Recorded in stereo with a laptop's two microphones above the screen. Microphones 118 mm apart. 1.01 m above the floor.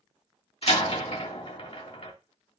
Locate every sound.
0.6 s a door slam: 55° left (ahead or behind), 1.7 m